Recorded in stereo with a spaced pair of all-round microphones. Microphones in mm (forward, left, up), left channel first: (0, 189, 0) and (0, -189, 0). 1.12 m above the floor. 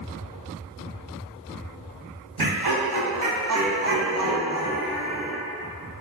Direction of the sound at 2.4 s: 70° right (ahead or behind).